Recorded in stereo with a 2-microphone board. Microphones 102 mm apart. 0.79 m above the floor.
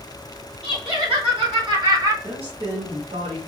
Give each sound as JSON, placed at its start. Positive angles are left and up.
{"t": 0.6, "sound": "laughter", "side_deg": -65, "distance_m": 2.5}
{"t": 2.2, "sound": "a woman speaking", "side_deg": -60, "distance_m": 1.6}